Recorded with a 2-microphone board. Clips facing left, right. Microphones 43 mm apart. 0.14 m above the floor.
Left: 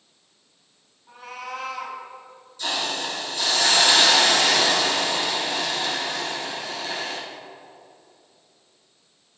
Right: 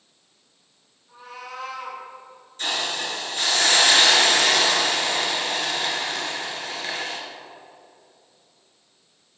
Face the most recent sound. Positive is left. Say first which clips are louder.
# even
turn(degrees=-50)  # may be behind; listen again after turning